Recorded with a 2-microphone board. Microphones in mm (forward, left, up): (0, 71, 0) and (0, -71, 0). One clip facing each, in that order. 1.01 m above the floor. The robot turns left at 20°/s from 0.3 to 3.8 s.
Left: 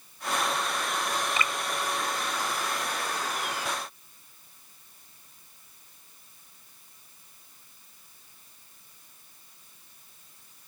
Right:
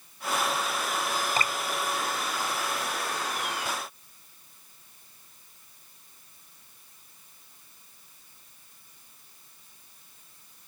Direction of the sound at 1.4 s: 40° right (ahead or behind).